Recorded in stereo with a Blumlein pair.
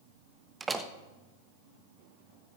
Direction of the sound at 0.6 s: 15° right.